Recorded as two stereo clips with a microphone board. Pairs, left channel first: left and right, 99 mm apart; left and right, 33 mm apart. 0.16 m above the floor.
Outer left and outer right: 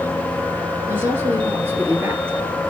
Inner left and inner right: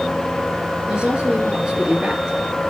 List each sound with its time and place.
0.9 s a woman speaking: 25° right (ahead or behind), 2.5 m